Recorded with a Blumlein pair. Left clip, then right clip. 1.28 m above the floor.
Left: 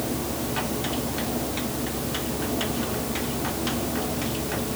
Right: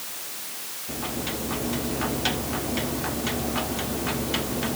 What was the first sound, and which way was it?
Only background noise.